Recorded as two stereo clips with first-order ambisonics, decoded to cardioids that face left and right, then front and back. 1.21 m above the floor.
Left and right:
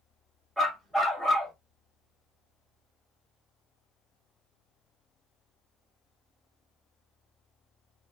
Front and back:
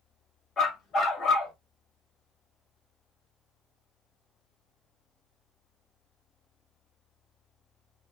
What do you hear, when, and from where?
0.6 s a dog barking: straight ahead, 0.8 m